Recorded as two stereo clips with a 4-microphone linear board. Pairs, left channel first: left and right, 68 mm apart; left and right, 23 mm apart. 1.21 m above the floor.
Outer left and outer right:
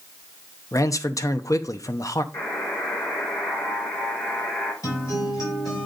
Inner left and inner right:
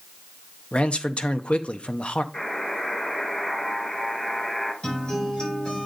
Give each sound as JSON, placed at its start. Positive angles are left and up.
{"t": 0.7, "sound": "a man speaking", "side_deg": 55, "distance_m": 0.7}
{"t": 2.3, "sound": "a buzzer", "side_deg": 60, "distance_m": 4.0}
{"t": 4.8, "sound": "a guitar", "side_deg": 60, "distance_m": 5.0}